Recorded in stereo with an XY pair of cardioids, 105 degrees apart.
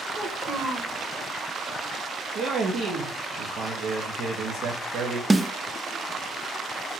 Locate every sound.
0.1 s a child speaking: 40° right, 1.5 m
2.4 s a man speaking: 70° right, 1.1 m
5.3 s a snare drum: 15° right, 0.6 m